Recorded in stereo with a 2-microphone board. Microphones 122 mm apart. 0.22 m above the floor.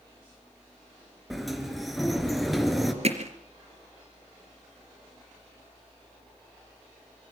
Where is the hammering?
55° right (ahead or behind), 3.5 m.